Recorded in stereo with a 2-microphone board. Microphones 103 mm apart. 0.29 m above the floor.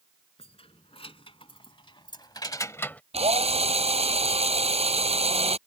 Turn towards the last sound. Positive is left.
turn(degrees=-85)